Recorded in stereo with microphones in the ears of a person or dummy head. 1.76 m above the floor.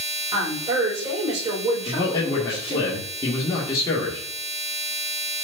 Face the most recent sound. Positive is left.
turn(degrees=20)  # may be behind; listen again after turning